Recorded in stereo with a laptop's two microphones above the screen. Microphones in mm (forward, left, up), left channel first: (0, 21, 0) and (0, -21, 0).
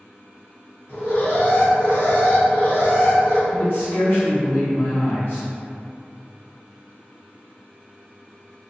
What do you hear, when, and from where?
0.9 s an alarm: 75° left (ahead or behind), 1.5 m
3.5 s a man speaking: 55° left (ahead or behind), 1.3 m